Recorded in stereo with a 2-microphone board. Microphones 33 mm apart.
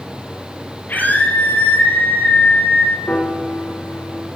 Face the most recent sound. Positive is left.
turn(degrees=80)